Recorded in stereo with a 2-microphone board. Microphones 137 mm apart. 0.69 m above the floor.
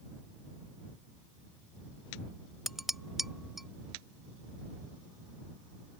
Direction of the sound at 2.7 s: Centre (ahead or behind).